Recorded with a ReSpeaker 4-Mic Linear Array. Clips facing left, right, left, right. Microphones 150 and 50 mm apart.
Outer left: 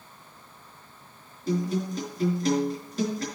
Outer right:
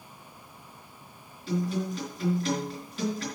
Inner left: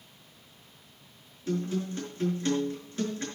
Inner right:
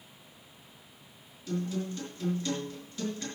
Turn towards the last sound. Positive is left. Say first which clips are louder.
# outer left 2 dB, inner left 3 dB
turn(degrees=40)  # may be behind; listen again after turning